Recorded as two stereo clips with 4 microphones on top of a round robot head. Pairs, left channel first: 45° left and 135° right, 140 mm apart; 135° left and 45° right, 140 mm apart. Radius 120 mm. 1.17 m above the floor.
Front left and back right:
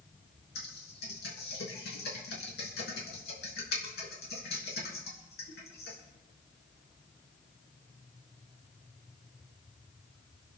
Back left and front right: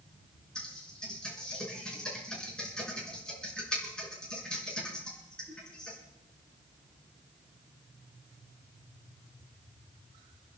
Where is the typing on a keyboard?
50° left, 4.5 m.